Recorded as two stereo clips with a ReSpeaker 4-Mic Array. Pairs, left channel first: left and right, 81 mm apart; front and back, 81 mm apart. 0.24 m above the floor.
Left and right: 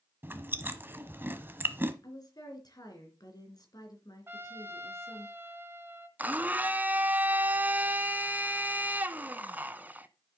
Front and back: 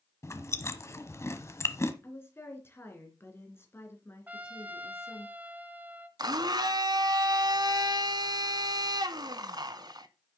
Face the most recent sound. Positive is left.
turn(degrees=-155)